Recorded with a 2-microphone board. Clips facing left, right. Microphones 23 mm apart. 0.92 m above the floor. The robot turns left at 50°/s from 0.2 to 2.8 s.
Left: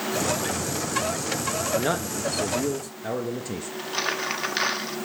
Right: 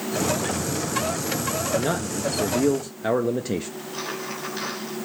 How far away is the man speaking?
About 0.7 m.